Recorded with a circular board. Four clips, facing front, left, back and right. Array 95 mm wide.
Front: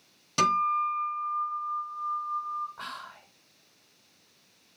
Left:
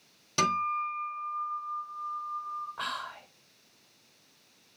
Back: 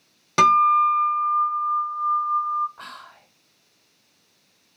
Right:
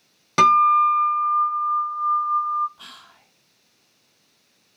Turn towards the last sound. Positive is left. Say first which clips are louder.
# left 11 dB, even
turn(degrees=85)